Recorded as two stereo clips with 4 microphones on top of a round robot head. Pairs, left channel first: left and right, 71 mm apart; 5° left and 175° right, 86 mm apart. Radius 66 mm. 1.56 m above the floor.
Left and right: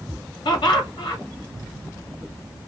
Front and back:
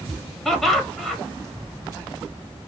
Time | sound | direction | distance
0.5 | laughter | 95° left | 1.6 m